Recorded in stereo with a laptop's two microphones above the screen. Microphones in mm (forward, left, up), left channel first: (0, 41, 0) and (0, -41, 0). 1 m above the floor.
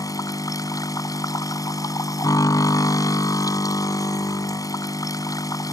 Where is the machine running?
45° left (ahead or behind).